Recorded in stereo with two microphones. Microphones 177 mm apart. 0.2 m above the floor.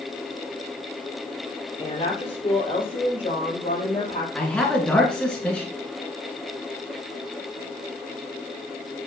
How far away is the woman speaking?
About 3.5 m.